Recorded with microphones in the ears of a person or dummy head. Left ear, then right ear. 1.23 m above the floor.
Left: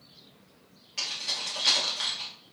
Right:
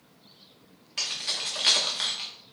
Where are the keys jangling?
15° right (ahead or behind), 1.0 m.